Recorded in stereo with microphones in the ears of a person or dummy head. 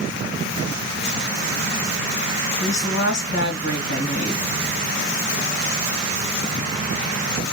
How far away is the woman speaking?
About 2 m.